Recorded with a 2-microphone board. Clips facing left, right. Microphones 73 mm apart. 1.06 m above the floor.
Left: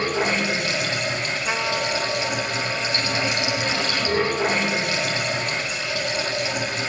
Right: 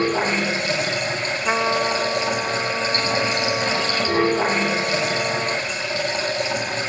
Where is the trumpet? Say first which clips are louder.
Right 6 dB; 25° right (ahead or behind), 1.1 m.